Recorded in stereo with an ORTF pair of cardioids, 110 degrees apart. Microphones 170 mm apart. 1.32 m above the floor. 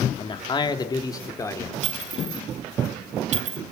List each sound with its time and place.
0.2 s a man speaking: 30° left, 2.5 m; by 1.7 s 15° left, 4 m
1.8 s a clink: 50° right, 4.5 m